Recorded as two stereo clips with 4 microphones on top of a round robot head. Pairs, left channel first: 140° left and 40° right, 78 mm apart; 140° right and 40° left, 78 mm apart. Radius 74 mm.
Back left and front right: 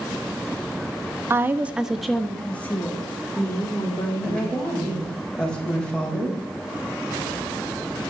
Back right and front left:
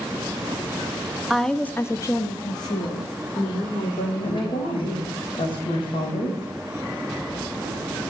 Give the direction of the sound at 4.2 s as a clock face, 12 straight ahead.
5 o'clock.